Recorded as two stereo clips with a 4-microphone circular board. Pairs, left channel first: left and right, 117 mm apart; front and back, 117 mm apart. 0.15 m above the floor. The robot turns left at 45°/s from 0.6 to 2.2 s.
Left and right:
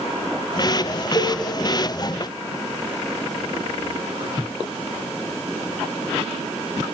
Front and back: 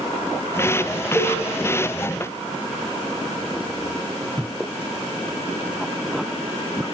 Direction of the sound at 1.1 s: 115° left.